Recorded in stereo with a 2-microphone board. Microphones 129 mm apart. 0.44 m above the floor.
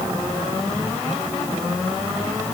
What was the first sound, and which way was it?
Only background noise.